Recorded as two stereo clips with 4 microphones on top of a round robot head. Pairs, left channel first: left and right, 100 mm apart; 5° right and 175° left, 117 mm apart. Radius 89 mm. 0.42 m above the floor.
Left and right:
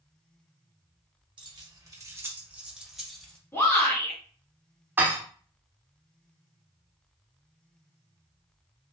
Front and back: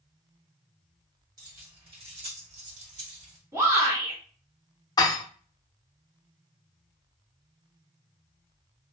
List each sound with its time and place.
1.4 s keys jangling: 125° right, 1.0 m; by 3.4 s 175° left, 1.3 m
3.5 s a shout: 135° left, 1.6 m
5.0 s dishes clattering: 30° right, 0.5 m